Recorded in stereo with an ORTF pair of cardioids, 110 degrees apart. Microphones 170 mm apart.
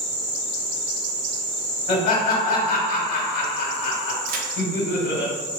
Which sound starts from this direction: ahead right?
A crack, at 4.3 s.